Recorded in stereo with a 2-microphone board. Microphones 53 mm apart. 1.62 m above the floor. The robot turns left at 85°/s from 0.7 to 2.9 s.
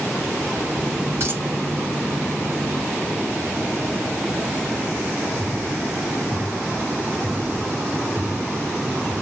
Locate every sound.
1.2 s a dropped coin: 50° right (ahead or behind), 3 m; by 1.4 s 30° right (ahead or behind), 3 m